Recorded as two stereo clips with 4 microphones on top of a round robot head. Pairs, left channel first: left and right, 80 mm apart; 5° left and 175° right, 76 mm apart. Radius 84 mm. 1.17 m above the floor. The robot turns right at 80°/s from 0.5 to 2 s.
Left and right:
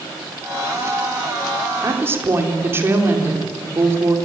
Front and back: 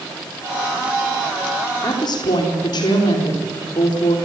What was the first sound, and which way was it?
A woman speaking, 45° right.